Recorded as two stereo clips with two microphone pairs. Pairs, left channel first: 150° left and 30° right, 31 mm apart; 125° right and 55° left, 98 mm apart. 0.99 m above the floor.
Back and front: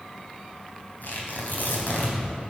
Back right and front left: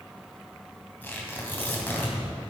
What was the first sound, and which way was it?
Tearing paper, 165° left.